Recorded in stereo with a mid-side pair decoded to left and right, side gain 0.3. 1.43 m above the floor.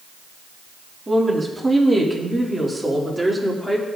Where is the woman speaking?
20° right, 3.5 m; by 3.9 s 5° left, 4 m.